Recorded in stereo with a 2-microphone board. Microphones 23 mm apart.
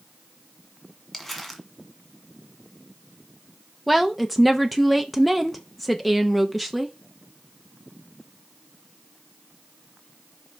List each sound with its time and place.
1.1 s crumpling: 10° left (ahead or behind), 1.6 m
3.9 s a woman speaking: centre (ahead or behind), 0.7 m